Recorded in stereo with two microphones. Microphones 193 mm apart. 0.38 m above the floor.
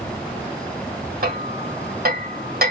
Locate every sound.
1.2 s hammering: 50° right (ahead or behind), 1.5 m